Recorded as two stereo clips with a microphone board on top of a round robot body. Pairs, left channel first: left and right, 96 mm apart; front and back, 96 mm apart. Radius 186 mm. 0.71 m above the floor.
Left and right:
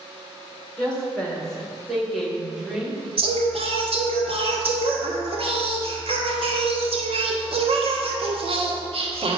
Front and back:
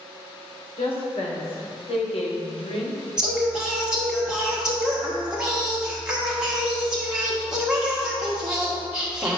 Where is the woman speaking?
10° left, 2.5 m; by 3.0 s 10° right, 1.6 m.